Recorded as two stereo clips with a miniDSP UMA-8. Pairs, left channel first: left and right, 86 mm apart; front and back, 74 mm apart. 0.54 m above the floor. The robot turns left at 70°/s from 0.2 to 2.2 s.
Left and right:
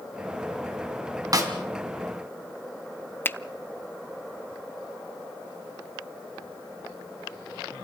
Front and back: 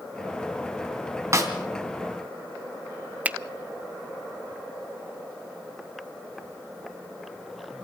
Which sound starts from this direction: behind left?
A finger snap, at 3.2 s.